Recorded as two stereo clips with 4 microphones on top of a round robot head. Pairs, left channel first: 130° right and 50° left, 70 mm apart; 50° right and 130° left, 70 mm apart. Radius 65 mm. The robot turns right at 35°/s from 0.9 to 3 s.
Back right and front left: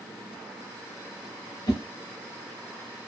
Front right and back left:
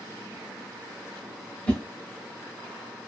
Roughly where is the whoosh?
Behind right.